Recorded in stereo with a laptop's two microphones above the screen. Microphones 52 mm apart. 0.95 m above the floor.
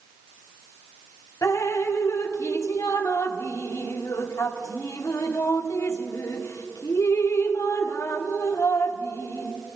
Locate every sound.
1.4 s dripping: 75° left (ahead or behind), 1.0 m